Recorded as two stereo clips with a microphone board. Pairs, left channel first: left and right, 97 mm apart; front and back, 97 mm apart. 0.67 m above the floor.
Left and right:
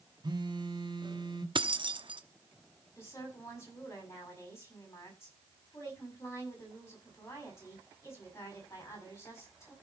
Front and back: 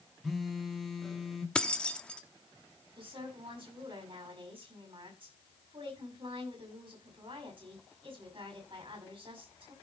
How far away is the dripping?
I don't hear dripping.